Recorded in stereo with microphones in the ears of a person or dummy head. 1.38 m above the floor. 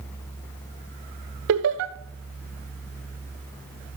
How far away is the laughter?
About 1.2 m.